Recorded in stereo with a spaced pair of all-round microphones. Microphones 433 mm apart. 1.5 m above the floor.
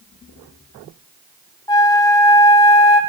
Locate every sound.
1.7 s a flute: 10° left (ahead or behind), 1.7 m